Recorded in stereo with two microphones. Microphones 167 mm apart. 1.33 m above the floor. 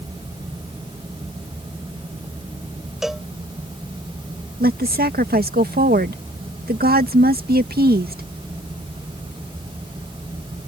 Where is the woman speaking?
80° right.